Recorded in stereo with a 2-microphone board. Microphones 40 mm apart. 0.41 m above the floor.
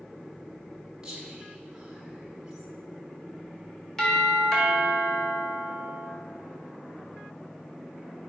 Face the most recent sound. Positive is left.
turn(degrees=15)  # may be behind; listen again after turning